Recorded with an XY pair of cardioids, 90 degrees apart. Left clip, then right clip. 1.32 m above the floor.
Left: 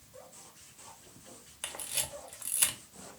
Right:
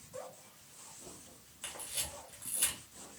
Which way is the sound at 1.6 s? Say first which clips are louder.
Left 4 dB; 65° left.